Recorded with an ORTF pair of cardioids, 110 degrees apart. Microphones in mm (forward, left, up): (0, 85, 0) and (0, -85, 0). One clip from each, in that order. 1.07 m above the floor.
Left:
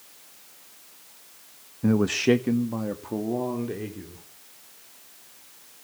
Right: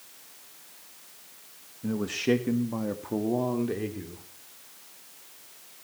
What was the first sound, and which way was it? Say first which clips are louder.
A man speaking: left 6 dB; 55° left.